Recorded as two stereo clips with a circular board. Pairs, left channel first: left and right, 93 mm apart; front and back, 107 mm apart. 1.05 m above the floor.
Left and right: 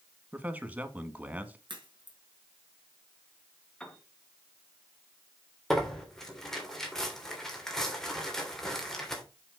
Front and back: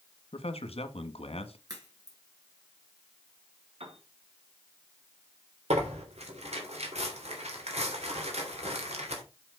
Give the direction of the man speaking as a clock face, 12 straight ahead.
1 o'clock.